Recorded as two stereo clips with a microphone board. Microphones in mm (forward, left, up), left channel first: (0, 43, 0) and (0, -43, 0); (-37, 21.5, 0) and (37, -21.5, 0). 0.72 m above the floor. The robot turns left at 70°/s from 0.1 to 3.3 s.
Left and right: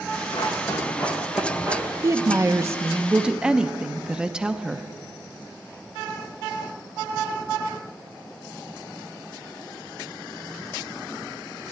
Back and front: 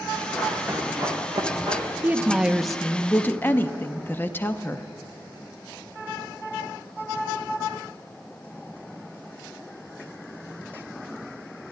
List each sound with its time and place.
0.3 s running footsteps: 70° left, 4.5 m; by 1.8 s 45° right, 4 m
2.0 s a woman speaking: 75° right, 0.6 m; by 4.9 s 165° right, 0.6 m